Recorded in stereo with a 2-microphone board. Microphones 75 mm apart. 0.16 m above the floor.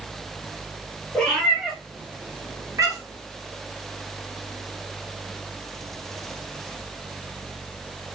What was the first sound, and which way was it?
A cat meowing, 10° left (ahead or behind).